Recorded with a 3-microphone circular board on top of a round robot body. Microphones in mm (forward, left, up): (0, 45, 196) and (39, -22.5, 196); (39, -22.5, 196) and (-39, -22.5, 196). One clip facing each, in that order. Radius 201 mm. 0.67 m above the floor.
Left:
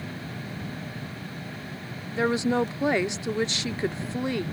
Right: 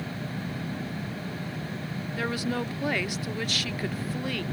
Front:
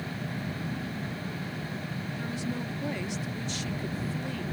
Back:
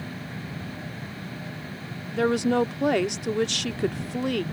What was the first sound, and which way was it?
A woman speaking, 175° right.